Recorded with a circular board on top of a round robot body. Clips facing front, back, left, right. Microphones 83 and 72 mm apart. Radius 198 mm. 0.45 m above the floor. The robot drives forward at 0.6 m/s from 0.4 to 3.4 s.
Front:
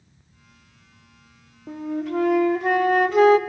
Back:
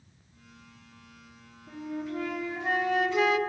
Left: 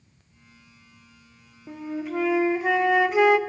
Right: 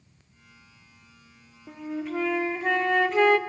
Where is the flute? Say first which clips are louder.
Front 8 dB, left 1 dB; 5° left, 1.5 m; by 3.4 s 15° left, 0.7 m.